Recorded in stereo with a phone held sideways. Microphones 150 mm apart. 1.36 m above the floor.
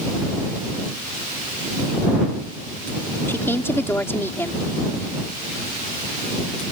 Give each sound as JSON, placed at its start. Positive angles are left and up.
{"t": 3.3, "sound": "a woman speaking", "side_deg": 15}